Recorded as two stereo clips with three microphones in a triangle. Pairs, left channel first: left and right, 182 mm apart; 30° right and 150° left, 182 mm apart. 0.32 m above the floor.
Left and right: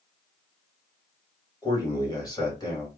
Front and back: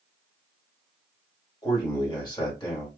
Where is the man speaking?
30° left, 2.0 m.